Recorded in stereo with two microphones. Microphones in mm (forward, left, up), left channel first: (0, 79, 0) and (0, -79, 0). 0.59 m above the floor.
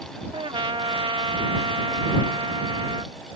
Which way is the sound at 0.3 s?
35° right (ahead or behind).